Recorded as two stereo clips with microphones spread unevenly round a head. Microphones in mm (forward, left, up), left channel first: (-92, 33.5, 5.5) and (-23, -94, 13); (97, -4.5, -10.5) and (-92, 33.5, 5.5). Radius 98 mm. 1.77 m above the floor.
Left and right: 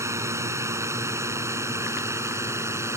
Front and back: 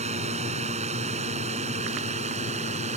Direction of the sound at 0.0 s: 130° right.